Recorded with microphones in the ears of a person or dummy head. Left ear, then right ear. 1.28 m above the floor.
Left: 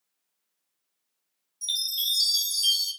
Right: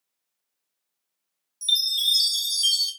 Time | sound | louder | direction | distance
1.6 | a chime | right 6 dB | 15° right (ahead or behind) | 1.2 m